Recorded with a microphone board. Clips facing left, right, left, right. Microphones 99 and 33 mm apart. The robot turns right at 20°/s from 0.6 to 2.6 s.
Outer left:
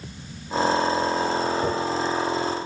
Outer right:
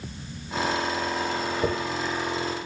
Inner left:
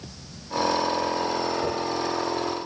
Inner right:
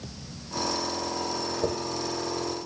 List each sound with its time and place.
1.6 s a dropped coin: 65° right (ahead or behind), 0.8 m